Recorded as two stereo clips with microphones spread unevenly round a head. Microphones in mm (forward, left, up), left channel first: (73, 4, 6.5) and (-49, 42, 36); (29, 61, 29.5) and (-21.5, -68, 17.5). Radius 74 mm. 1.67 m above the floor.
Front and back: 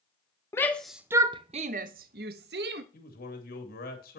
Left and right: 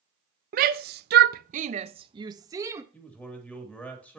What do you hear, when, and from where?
0.5 s a shout: 90° right, 0.6 m; by 2.8 s 175° left, 1.1 m
2.9 s a man speaking: 10° right, 2.5 m